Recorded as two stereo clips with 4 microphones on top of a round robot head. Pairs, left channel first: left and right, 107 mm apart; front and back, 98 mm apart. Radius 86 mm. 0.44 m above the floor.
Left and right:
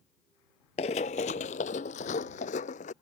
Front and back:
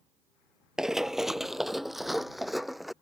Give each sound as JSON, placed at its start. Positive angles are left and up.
{"t": 0.8, "sound": "running footsteps", "azimuth_deg": 100}